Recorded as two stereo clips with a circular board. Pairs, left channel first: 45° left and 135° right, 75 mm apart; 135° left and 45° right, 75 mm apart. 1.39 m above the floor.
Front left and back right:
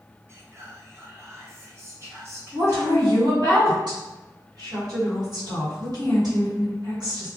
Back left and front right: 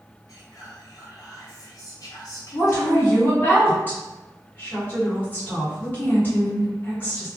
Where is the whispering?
170° left, 1.1 m.